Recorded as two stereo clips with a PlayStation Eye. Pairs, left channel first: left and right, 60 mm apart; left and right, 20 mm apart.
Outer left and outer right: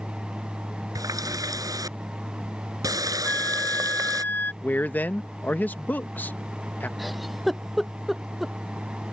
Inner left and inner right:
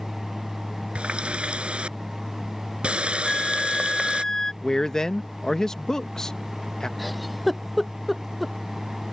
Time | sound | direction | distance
0.9 | a running tap | 75° right (ahead or behind) | ?
3.2 | a flute | 30° left (ahead or behind) | ?
4.6 | a man speaking | 30° left (ahead or behind) | ?
7.0 | a giggle | 5° right (ahead or behind) | ?